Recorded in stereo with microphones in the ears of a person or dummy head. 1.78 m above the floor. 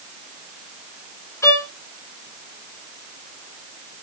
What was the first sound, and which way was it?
A violin, 20° left (ahead or behind).